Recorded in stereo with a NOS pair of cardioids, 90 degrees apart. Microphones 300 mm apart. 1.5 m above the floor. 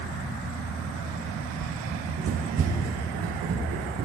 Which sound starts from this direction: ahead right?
Running footsteps, at 1.9 s.